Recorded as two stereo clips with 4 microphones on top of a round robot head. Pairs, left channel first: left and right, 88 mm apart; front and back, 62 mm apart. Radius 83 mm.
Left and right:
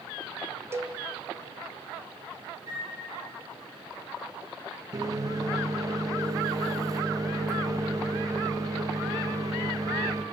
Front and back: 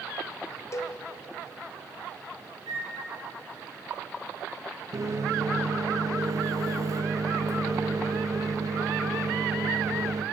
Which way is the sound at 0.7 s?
35° right.